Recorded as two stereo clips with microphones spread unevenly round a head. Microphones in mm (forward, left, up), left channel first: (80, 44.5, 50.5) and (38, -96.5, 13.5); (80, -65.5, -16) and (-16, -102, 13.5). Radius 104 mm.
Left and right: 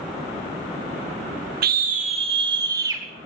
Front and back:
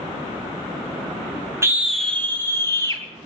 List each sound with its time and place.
1.6 s a scream: 95° right, 0.7 m; by 3.0 s 40° right, 1.8 m